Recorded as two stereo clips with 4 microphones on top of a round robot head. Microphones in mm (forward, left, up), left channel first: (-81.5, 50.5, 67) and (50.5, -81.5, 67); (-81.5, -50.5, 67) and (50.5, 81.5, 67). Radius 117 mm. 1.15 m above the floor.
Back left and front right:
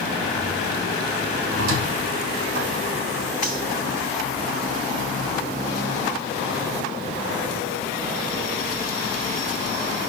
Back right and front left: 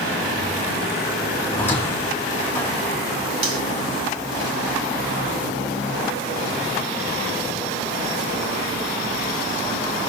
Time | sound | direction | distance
1.5 | a squeak | 55° right | 4 m
3.4 | cutlery clinking | 5° left | 2.5 m